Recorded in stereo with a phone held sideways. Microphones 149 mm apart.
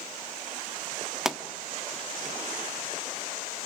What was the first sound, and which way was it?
A pop, 5° right (ahead or behind).